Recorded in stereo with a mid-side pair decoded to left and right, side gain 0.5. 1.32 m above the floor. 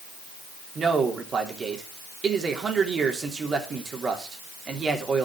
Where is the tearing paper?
No tearing paper in this recording.